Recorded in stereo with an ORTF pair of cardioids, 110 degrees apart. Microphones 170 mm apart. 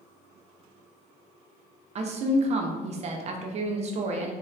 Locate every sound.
1.9 s a woman speaking: 40° right, 0.6 m